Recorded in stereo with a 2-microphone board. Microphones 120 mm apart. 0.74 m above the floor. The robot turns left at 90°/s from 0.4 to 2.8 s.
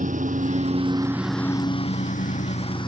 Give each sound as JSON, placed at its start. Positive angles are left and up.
{"t": 0.0, "sound": "a lawn mower", "side_deg": -85}